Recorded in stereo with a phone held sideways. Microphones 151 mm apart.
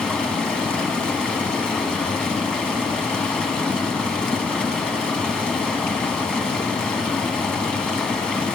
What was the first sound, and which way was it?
Running water, 5° left (ahead or behind).